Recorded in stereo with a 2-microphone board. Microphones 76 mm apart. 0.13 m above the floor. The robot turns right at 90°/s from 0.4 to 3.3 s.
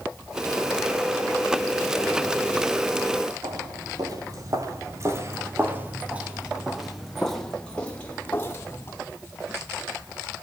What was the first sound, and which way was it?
Footsteps, 60° right (ahead or behind).